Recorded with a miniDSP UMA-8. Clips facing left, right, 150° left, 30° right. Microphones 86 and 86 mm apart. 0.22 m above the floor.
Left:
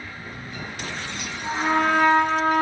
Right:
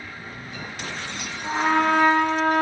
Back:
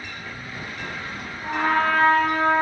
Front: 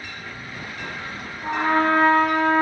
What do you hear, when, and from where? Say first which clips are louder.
1.4 s a trumpet: right 1 dB, front 1 dB; 25° left, 3 m